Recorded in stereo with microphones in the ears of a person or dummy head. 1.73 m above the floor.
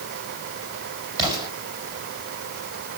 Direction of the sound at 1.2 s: 30° right (ahead or behind).